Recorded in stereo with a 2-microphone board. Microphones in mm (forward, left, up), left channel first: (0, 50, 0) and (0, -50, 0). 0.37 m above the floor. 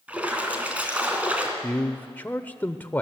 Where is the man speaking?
20° left (ahead or behind), 0.8 m.